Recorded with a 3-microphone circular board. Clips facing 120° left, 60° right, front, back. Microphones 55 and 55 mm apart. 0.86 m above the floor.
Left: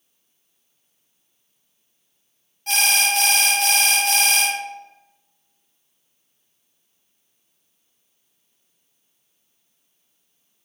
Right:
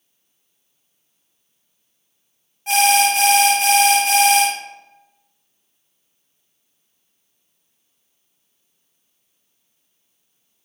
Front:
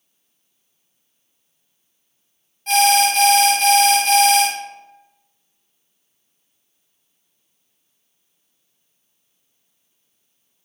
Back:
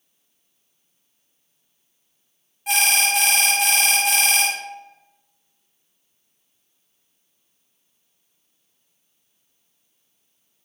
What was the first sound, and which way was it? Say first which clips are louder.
An alarm: right 6 dB, front 6 dB; 110° right.